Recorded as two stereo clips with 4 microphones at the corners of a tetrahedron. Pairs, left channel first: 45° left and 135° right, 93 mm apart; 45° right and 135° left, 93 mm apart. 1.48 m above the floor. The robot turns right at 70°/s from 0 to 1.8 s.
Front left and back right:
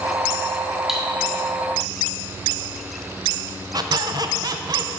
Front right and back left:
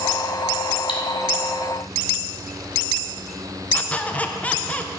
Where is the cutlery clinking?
50° right, 1.6 m; by 1.0 s 40° right, 1.6 m.